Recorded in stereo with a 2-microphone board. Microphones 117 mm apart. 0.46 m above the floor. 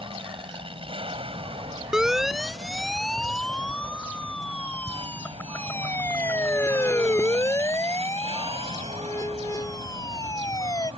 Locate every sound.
0.0 s an aircraft: 50° right (ahead or behind); by 11.0 s 60° right (ahead or behind)
1.9 s a siren: 5° right (ahead or behind); by 10.9 s 30° left (ahead or behind)